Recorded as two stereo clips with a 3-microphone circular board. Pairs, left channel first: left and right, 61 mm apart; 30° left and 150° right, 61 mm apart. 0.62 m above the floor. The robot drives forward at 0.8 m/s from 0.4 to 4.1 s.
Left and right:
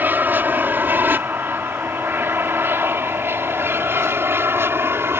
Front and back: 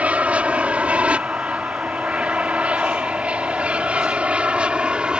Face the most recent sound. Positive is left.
turn(degrees=-85)